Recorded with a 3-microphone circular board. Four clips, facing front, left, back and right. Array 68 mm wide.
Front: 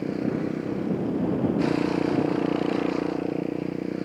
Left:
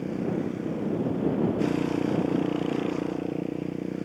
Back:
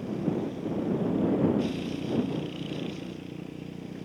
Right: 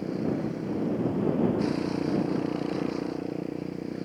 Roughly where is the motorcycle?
Ahead.